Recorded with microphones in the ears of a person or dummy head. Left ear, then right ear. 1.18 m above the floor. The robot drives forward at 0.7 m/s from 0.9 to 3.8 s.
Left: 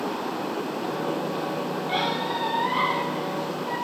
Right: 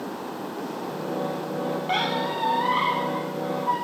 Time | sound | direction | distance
1.9 | a squeak | 30° right (ahead or behind) | 2.5 m